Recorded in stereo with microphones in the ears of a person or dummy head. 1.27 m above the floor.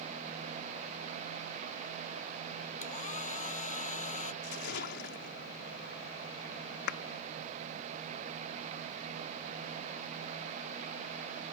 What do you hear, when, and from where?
2.8 s a hair dryer: 45° left (ahead or behind)
4.4 s a splash: 60° left (ahead or behind)
6.9 s a clap: 65° left (ahead or behind)